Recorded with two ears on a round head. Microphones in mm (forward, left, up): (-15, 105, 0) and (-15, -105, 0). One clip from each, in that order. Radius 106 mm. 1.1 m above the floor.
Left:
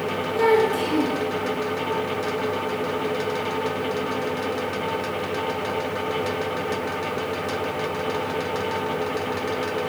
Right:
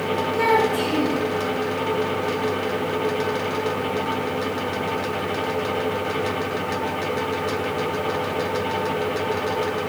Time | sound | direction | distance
0.3 | a child speaking | 15° left (ahead or behind) | 8.5 m